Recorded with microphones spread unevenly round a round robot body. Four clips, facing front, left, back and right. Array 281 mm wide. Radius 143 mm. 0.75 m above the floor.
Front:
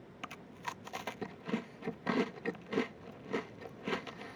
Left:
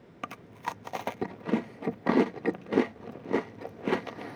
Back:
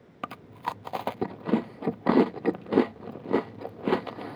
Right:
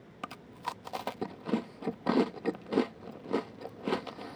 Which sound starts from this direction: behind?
Chewing, at 0.2 s.